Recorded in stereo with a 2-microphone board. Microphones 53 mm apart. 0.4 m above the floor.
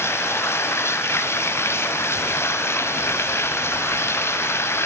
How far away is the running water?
About 2 m.